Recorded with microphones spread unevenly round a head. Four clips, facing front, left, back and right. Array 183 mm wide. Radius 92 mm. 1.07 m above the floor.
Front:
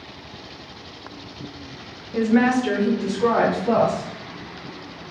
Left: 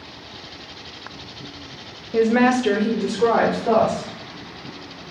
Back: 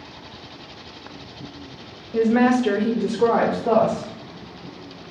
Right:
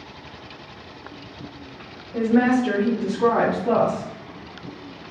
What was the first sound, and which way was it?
A woman speaking, 80° left.